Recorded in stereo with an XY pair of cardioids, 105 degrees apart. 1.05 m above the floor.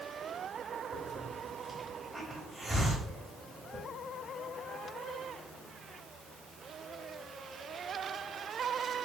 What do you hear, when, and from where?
0.9 s a hiss: 10° right, 2.0 m